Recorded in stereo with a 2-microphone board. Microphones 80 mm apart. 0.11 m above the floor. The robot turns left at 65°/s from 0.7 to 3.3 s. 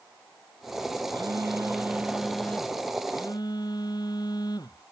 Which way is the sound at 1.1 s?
100° right.